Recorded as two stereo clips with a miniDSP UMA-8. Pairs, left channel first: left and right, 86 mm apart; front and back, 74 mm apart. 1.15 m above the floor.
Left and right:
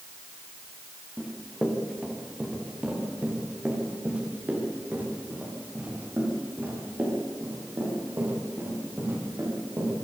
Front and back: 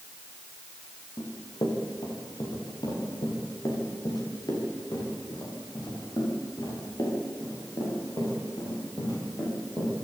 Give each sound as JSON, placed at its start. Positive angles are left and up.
{"t": 1.2, "sound": "running footsteps", "azimuth_deg": -5, "distance_m": 6.5}